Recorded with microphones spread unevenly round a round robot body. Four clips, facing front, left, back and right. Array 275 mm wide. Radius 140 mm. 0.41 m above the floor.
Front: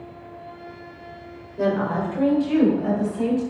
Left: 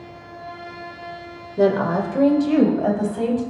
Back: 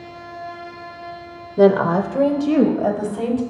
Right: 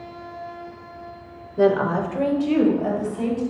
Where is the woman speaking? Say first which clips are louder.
Even, back 8 dB; 170° left, 1.5 m; by 3.4 s 150° left, 3 m.